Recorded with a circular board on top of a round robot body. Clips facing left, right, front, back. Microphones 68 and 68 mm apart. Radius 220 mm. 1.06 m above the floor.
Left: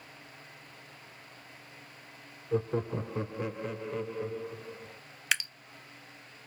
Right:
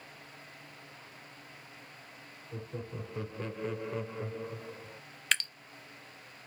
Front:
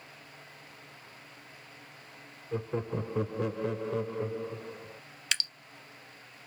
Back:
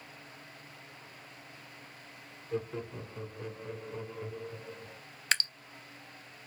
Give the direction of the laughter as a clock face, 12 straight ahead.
10 o'clock.